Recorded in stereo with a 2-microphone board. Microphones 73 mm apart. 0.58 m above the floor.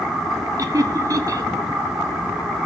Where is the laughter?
50° right (ahead or behind), 1.0 m.